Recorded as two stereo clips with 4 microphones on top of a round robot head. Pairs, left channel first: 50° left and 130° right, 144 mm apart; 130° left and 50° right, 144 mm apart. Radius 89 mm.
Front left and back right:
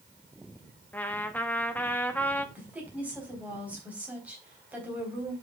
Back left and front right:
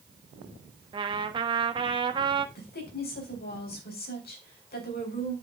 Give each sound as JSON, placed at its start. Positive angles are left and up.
{"t": 0.9, "sound": "a trumpet", "azimuth_deg": -20, "distance_m": 1.1}
{"t": 2.5, "sound": "a woman speaking", "azimuth_deg": 150, "distance_m": 3.5}